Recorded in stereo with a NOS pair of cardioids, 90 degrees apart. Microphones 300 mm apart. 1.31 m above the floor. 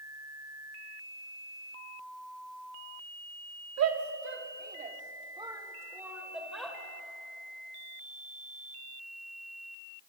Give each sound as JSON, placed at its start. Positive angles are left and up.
{"t": 3.8, "sound": "a shout", "azimuth_deg": -55, "distance_m": 3.0}